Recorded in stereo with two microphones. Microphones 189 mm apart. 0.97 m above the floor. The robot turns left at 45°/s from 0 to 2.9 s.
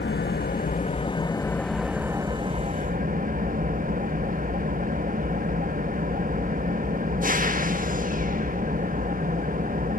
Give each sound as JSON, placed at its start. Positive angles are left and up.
{"t": 0.0, "sound": "an engine running", "azimuth_deg": 80, "distance_m": 1.4}